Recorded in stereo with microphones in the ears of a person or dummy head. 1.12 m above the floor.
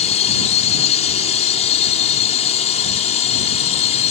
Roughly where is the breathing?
I don't hear breathing.